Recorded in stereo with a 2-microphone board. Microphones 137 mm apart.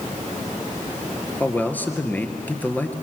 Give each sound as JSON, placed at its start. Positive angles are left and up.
{"t": 1.4, "sound": "a man speaking", "side_deg": 10, "distance_m": 2.0}